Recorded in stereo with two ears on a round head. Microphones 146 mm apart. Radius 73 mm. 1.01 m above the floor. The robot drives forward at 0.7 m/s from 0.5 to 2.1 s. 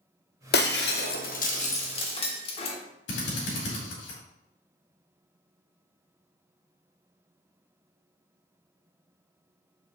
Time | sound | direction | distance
0.5 | breaking glass | 65° left (ahead or behind) | 0.8 m
3.1 | a drill | 75° left (ahead or behind) | 3 m